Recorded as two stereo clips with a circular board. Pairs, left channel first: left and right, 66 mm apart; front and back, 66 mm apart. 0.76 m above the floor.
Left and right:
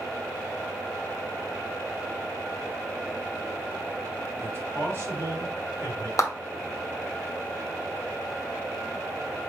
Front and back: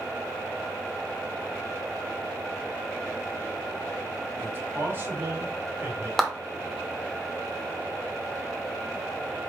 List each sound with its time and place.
4.4 s a man speaking: 125° right, 1.7 m
6.2 s a clap: 80° left, 0.9 m